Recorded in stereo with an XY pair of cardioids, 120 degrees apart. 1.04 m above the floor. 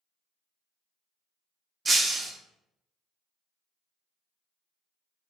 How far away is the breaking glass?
About 0.6 m.